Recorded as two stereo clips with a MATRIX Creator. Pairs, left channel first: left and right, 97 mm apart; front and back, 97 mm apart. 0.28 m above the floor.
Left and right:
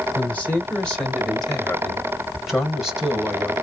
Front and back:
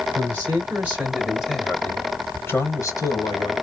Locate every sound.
0.1 s a man speaking: 155° left, 1.5 m; by 3.5 s 10° right, 1.7 m